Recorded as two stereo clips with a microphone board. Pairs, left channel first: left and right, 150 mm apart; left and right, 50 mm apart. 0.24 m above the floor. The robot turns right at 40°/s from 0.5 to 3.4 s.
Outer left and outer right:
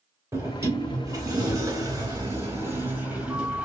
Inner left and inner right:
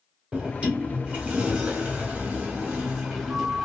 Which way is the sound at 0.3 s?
20° right (ahead or behind).